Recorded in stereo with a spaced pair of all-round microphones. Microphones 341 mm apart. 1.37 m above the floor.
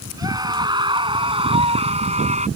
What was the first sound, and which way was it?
A scream, 10° right (ahead or behind).